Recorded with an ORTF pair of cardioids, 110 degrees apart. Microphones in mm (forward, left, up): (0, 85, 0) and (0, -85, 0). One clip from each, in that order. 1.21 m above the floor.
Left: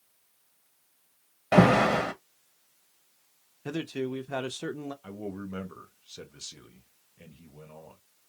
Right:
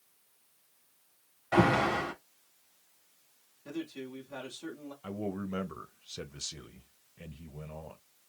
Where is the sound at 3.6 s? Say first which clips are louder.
Left 8 dB; 65° left, 0.7 m.